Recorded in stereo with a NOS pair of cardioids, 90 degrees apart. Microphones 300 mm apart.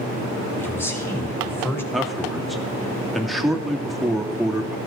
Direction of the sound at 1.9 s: Straight ahead.